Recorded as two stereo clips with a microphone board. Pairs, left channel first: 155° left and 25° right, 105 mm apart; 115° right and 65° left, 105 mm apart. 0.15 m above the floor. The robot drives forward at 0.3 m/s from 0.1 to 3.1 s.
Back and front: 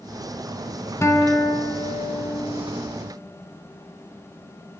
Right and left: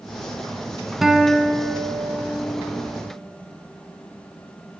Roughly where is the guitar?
Behind left.